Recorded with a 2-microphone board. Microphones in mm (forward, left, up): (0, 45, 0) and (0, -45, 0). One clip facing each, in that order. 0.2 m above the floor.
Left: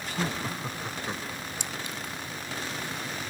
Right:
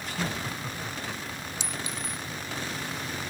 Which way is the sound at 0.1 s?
20° left (ahead or behind).